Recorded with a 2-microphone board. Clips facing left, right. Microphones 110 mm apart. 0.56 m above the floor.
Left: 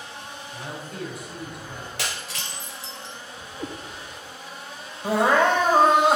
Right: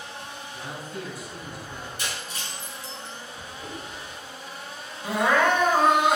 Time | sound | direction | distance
0.5 | a man speaking | 55° left (ahead or behind) | 3.5 m
2.0 | breaking glass | 75° left (ahead or behind) | 1.6 m
3.6 | a cat meowing | 65° left (ahead or behind) | 1.8 m
5.0 | crying | 30° left (ahead or behind) | 1.9 m